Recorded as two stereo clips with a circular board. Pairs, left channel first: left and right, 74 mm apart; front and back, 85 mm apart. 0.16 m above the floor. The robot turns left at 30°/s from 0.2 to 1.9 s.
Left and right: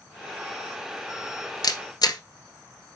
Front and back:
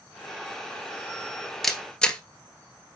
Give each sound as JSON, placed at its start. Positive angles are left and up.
{"t": 1.6, "sound": "a camera shutter", "azimuth_deg": 90, "distance_m": 1.2}